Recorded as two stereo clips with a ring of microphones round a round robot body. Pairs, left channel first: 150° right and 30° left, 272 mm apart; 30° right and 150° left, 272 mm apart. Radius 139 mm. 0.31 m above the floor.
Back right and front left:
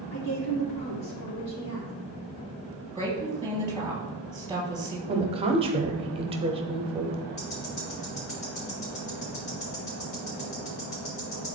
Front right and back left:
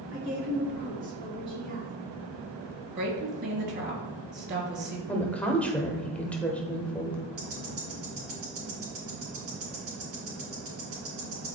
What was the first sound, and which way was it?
A woman speaking, 165° right.